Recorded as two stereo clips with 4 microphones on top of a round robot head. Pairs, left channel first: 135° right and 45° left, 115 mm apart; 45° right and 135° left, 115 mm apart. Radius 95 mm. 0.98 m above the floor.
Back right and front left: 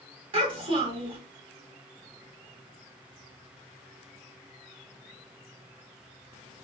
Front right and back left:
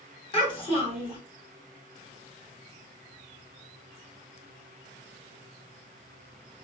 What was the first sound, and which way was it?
A child speaking, straight ahead.